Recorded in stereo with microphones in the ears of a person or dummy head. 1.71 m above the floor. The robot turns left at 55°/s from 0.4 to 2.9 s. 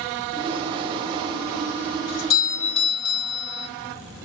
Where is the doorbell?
70° left, 2 m; by 3.7 s 25° left, 2 m.